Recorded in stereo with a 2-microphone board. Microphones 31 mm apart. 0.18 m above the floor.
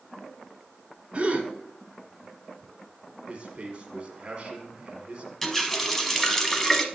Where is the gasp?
35° right (ahead or behind), 1.4 m.